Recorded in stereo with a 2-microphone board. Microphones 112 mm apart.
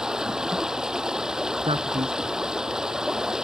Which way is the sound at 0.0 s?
5° right (ahead or behind).